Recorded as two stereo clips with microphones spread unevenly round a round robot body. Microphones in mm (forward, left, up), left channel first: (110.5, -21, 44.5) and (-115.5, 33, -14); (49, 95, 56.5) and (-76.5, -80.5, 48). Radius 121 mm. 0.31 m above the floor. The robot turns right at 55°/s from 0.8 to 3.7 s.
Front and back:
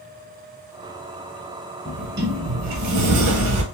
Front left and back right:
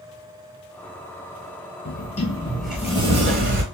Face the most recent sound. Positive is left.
turn(degrees=-160)